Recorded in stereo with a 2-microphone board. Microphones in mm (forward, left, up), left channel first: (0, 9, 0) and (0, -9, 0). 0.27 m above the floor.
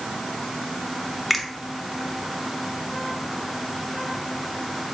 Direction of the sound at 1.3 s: 10° right (ahead or behind).